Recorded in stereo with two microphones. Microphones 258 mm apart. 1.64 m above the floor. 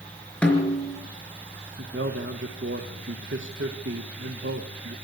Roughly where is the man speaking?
Right.